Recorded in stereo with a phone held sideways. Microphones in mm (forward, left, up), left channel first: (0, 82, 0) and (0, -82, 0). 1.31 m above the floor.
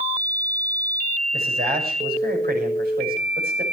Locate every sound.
1.3 s a man speaking: 75° right (ahead or behind), 6.5 m